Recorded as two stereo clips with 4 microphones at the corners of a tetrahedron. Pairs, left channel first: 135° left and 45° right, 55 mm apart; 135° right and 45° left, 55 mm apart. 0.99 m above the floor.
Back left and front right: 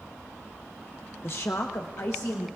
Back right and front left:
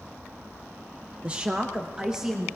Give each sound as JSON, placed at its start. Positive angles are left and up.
{"t": 1.2, "sound": "a woman speaking", "azimuth_deg": 105, "distance_m": 0.6}